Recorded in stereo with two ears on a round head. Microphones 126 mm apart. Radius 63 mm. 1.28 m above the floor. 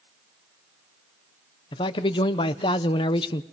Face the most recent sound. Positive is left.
turn(degrees=35)  # may be behind; listen again after turning